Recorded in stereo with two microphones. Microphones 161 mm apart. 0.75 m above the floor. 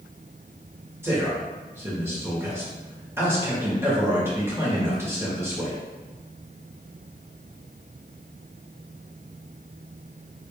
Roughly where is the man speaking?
Centre.